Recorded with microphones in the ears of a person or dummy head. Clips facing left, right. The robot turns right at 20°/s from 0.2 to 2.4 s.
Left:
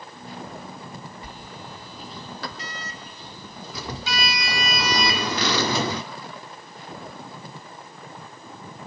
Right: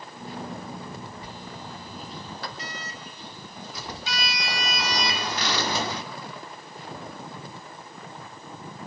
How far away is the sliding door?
About 0.7 m.